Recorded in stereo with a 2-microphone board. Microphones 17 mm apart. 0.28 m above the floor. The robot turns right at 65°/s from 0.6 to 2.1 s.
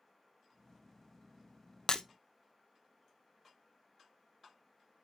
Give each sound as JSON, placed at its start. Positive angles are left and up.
{"t": 1.9, "sound": "breaking glass", "side_deg": 45, "distance_m": 0.7}